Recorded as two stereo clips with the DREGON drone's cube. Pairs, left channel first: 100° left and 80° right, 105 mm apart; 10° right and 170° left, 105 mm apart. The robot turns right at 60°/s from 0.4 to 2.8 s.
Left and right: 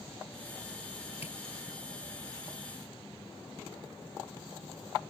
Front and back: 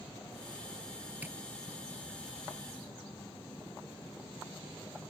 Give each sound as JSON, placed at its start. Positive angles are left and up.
{"t": 1.2, "sound": "tapping", "azimuth_deg": 95}